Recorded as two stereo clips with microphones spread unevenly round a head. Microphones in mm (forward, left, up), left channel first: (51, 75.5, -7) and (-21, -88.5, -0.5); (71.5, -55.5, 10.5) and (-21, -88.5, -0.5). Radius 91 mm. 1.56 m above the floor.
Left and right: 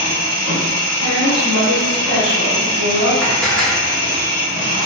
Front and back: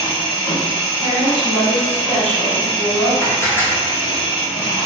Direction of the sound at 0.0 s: 40° left.